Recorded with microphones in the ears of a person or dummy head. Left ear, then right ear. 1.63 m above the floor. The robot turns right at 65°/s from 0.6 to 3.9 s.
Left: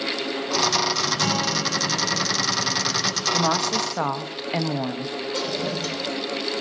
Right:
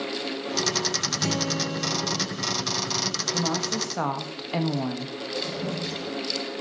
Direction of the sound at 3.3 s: 130° left.